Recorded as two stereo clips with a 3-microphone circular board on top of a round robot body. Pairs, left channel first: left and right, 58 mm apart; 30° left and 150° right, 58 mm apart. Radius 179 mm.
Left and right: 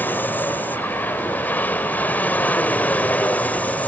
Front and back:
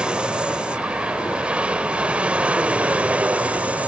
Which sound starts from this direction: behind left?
An aircraft, at 0.0 s.